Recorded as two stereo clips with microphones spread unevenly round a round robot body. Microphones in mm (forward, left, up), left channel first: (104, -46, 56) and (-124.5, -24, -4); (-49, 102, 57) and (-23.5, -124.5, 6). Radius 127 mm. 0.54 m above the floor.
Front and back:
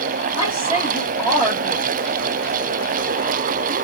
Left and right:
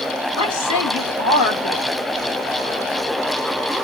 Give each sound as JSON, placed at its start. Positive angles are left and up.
{"t": 0.4, "sound": "a woman speaking", "azimuth_deg": 70, "distance_m": 2.0}